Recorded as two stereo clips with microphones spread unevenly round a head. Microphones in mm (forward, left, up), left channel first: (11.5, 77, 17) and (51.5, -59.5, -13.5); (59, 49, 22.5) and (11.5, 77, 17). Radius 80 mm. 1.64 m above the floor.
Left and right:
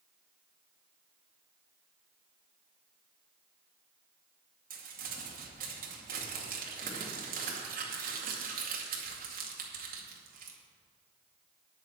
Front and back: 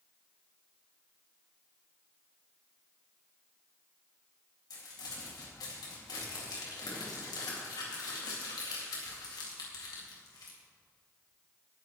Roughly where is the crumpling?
Ahead right.